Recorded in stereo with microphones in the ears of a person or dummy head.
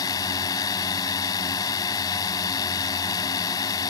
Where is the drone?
20° left (ahead or behind).